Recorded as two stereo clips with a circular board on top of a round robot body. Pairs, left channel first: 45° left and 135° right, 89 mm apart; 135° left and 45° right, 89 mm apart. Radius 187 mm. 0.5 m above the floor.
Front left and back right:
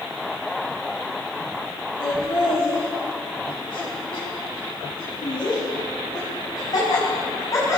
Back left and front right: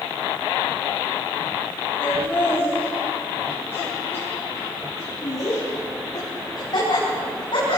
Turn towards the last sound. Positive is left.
turn(degrees=105)